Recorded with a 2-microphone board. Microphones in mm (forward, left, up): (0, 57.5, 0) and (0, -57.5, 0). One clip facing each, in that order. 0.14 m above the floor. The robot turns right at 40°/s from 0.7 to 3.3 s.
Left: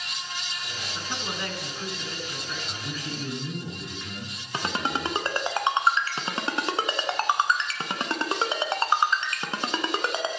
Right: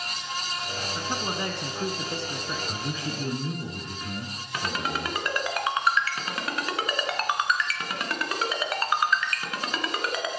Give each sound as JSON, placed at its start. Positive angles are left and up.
{"t": 0.9, "sound": "a man speaking", "side_deg": -20, "distance_m": 1.1}
{"t": 2.7, "sound": "a man speaking", "side_deg": -30, "distance_m": 1.8}
{"t": 4.5, "sound": "a ringtone", "side_deg": 30, "distance_m": 1.1}